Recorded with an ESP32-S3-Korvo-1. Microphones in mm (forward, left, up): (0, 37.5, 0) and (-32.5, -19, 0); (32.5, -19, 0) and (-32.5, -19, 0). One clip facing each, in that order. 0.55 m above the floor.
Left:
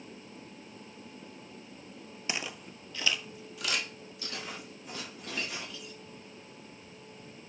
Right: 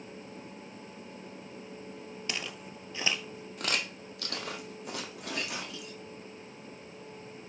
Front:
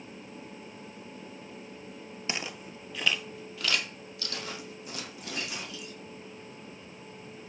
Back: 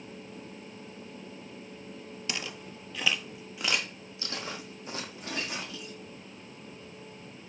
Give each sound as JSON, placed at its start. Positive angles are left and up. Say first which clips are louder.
{"t": 2.3, "sound": "footsteps", "louder": "left 2 dB, front 2 dB", "azimuth_deg": 15, "distance_m": 0.5}